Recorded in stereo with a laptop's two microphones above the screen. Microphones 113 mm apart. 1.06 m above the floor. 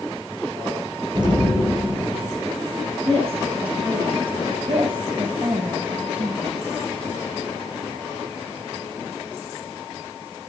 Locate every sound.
1.1 s an explosion: 40° right (ahead or behind), 4.5 m
3.0 s a woman speaking: 60° right (ahead or behind), 9 m
4.7 s a woman speaking: 50° right (ahead or behind), 6 m